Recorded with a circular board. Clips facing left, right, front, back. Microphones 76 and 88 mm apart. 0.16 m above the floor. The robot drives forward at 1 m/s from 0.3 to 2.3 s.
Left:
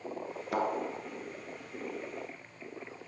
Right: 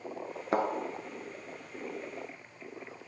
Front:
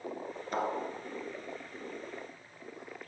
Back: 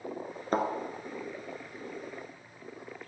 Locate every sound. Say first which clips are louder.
0.5 s a thud: right 2 dB, back 4 dB; 140° right, 1.1 m; by 0.7 s 145° right, 1.3 m